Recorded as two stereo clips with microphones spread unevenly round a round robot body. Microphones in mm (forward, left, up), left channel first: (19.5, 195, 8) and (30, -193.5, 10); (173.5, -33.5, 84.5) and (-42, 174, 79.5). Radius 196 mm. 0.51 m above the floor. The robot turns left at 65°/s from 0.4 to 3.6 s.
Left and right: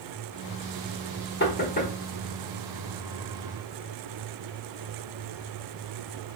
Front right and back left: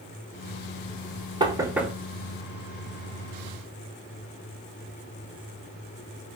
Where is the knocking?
85° left, 0.9 m; by 1.9 s 50° left, 0.9 m.